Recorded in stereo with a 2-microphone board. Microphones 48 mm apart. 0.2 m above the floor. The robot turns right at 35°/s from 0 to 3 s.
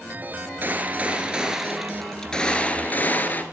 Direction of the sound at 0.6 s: 45° right.